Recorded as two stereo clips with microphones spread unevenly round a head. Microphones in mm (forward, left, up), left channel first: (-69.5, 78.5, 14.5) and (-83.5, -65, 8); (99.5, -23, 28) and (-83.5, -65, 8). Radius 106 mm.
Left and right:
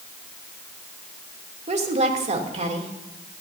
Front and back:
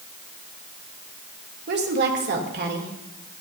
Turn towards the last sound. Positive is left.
turn(degrees=-135)